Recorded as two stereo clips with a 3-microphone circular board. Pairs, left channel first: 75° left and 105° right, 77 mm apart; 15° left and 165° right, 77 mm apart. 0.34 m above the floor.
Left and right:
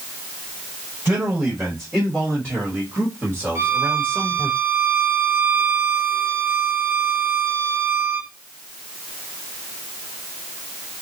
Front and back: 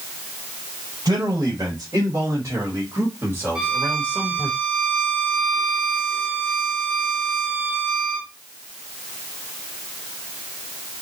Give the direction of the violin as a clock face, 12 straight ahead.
3 o'clock.